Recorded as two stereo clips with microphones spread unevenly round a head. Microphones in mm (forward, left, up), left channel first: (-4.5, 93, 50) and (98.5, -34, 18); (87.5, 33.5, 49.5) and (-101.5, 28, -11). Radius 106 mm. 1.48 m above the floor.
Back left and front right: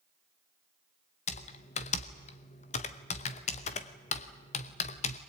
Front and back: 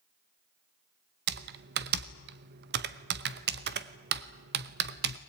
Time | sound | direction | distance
1.3 | typing on a keyboard | 145° left | 0.9 m